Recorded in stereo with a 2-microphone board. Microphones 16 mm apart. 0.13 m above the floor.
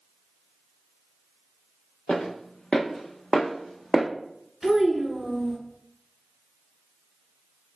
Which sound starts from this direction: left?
Footsteps, at 2.1 s.